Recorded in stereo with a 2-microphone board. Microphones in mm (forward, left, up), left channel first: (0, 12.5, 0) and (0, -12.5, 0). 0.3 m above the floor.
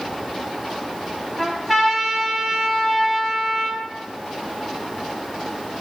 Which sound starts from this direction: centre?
A trumpet, at 1.4 s.